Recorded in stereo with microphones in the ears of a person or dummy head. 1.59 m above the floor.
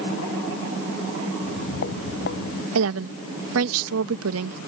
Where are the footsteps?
65° left (ahead or behind).